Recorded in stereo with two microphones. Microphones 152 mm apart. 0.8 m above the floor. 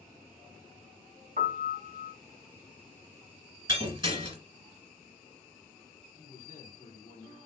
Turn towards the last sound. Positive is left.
turn(degrees=60)  # may be behind; listen again after turning